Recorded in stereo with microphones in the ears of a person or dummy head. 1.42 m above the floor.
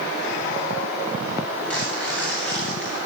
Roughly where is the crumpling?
Centre.